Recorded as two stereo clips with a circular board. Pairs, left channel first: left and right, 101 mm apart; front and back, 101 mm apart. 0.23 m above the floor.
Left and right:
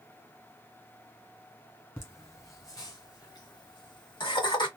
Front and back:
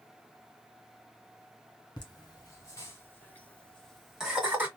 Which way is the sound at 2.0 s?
35° left.